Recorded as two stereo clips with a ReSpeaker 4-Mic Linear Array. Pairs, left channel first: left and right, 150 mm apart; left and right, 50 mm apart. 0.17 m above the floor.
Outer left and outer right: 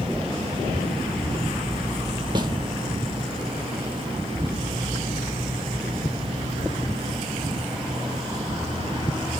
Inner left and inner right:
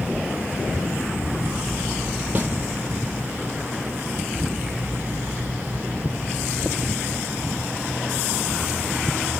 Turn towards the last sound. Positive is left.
turn(degrees=-30)  # may be behind; listen again after turning